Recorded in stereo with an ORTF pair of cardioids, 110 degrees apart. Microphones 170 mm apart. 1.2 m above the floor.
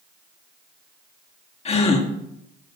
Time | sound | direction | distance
1.6 | a gasp | 40° left | 1.6 m